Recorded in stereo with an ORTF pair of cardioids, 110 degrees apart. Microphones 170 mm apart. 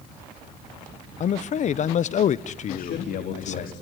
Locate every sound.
1.2 s a man speaking: 45° left, 1.1 m
2.7 s a man speaking: 55° left, 3.5 m